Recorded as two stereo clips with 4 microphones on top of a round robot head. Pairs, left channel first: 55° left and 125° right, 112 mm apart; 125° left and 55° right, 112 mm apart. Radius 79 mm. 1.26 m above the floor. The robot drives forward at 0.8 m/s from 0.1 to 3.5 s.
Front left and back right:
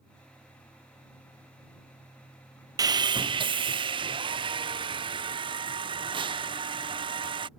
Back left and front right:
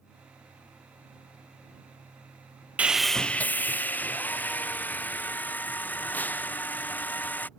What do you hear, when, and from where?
2.8 s sawing: 120° right; by 7.5 s 160° right